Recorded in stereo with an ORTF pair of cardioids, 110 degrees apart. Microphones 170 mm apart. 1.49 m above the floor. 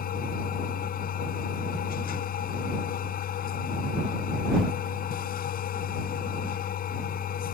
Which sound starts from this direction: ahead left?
A machine running, at 0.0 s.